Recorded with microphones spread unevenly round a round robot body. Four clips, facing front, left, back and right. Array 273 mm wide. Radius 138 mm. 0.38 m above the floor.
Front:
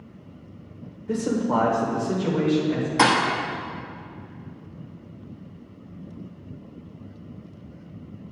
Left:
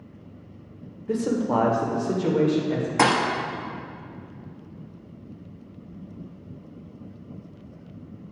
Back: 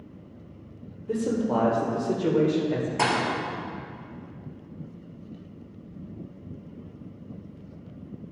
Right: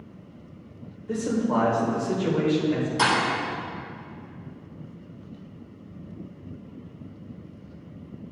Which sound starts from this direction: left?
A man speaking, at 1.1 s.